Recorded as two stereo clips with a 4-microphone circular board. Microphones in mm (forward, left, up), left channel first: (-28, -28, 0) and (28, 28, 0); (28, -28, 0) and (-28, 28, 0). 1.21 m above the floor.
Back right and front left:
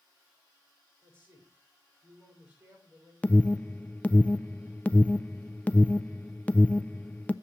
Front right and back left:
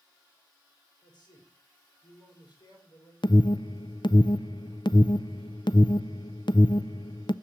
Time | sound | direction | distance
1.0 | a man speaking | 15° right | 6 m
3.2 | an alarm | 65° right | 0.5 m